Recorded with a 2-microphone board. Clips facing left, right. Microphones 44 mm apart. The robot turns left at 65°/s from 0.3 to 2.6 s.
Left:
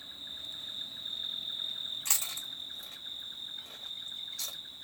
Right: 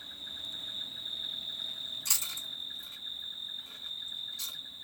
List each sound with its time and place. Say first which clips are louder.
0.0 s an insect: right 1 dB; 110° right, 1.6 m; by 4.8 s 100° left, 1.6 m
2.0 s chewing: even; 40° left (ahead or behind), 1.6 m; by 4.6 s 70° left (ahead or behind), 1.6 m